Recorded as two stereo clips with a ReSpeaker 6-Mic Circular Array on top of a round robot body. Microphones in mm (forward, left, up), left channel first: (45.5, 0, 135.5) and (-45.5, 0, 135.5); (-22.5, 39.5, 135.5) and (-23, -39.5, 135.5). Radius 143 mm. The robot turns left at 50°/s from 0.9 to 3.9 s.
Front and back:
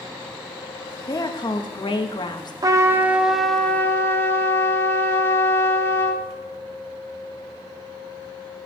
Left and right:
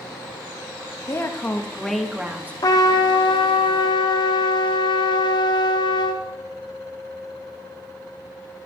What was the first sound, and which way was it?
A woman speaking, 45° left.